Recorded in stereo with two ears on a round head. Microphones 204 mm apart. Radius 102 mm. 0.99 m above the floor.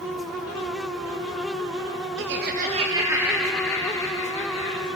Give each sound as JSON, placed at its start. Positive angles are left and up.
{"t": 2.2, "sound": "laughter", "side_deg": -60, "distance_m": 1.5}